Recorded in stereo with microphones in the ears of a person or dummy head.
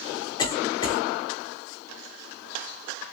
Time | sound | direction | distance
0.4 | a cough | 25° left (ahead or behind) | 1.2 m